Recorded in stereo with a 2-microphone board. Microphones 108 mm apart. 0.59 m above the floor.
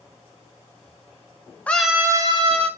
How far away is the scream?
About 0.7 m.